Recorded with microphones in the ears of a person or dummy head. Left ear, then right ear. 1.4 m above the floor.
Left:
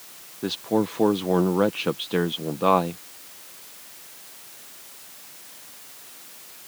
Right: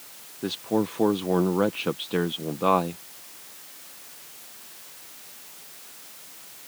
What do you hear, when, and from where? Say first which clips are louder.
0.4 s a man speaking: left 2 dB; 5° left (ahead or behind)